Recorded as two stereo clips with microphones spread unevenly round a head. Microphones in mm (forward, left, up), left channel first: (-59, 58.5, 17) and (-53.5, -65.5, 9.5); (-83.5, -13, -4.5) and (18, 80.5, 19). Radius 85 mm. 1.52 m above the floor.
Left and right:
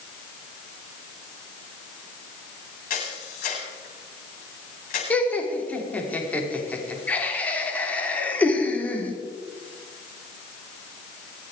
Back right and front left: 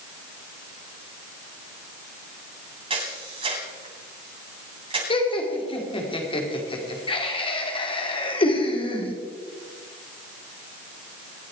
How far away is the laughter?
About 4 m.